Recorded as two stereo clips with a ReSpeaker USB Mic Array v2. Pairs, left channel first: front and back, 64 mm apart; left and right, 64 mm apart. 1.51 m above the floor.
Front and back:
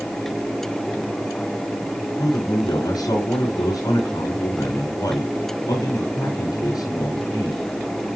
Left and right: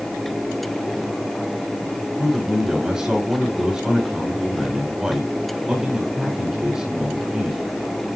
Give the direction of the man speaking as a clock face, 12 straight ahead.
12 o'clock.